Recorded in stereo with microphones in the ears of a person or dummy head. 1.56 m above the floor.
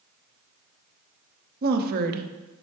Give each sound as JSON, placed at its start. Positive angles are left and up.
{"t": 1.6, "sound": "a woman speaking", "side_deg": -50, "distance_m": 0.7}